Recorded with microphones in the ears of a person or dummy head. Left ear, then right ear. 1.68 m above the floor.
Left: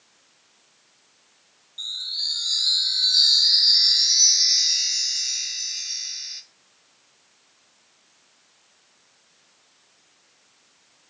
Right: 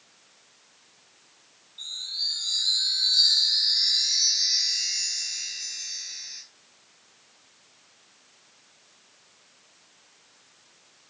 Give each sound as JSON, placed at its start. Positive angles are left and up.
{"t": 1.8, "sound": "a chime", "side_deg": 45, "distance_m": 1.8}